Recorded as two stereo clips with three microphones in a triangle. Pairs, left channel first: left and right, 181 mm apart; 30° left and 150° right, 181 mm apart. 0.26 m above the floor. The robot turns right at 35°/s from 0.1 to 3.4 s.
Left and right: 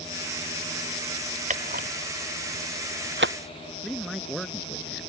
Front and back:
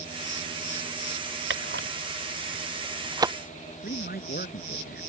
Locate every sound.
1.5 s a camera shutter: 140° right; by 3.4 s 75° right
3.8 s a man speaking: straight ahead